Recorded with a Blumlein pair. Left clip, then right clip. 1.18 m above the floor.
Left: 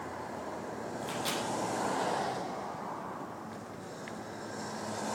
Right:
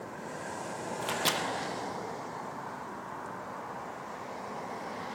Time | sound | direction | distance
1.0 | a microwave | 25° right | 1.3 m